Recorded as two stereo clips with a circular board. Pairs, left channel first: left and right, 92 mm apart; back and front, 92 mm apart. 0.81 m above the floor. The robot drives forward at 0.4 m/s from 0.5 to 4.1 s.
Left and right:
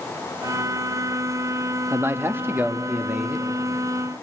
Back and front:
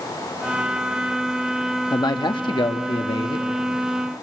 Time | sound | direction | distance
1.9 | a man speaking | 150° right | 0.9 m